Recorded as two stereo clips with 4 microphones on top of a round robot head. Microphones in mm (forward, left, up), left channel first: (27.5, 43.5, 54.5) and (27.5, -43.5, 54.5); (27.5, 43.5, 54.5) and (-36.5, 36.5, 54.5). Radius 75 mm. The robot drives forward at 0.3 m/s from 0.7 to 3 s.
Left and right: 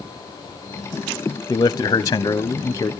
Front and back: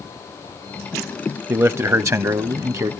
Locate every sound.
1.5 s a man speaking: 135° left, 0.8 m; by 2.9 s 150° left, 1.1 m